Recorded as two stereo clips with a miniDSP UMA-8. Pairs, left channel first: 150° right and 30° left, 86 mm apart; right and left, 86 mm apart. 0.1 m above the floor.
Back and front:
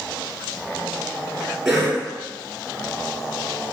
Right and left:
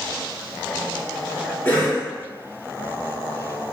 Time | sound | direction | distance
1.6 | a cough | 50° right | 1.8 m